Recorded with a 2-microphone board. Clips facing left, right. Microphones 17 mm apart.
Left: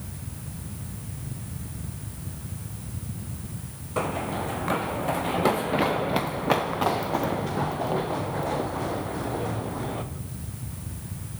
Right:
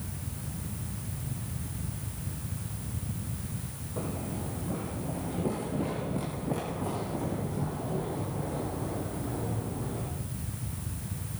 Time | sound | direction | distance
4.0 | running footsteps | 60° left (ahead or behind) | 1.5 m